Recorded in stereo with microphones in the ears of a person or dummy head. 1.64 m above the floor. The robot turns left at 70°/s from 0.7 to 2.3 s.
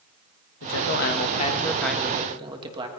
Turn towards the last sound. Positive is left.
turn(degrees=-25)